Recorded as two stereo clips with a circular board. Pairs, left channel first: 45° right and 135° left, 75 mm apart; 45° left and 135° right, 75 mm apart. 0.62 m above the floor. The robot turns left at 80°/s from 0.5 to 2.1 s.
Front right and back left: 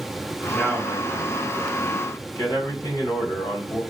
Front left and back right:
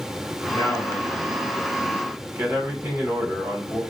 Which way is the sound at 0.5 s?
45° left.